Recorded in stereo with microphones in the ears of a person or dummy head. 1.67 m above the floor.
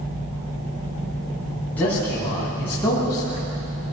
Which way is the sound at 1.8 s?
5° left (ahead or behind).